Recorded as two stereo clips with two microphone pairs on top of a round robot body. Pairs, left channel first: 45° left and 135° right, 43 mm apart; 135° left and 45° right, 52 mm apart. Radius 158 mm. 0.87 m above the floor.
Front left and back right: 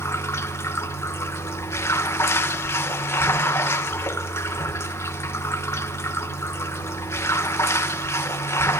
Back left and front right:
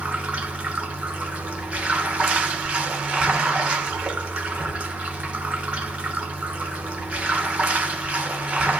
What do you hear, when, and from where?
0.0 s running water: 25° left, 1.6 m